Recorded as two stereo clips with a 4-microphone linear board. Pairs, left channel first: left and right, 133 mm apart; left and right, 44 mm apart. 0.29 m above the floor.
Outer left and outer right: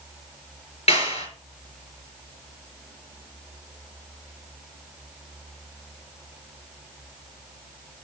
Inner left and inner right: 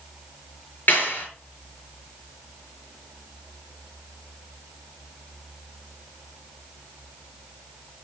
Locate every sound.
0.9 s a clap: 50° left (ahead or behind), 4.5 m